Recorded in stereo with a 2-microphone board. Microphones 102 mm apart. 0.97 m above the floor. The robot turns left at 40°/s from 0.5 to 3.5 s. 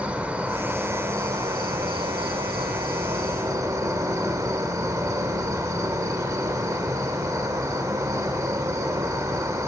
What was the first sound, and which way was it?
An insect, 20° right.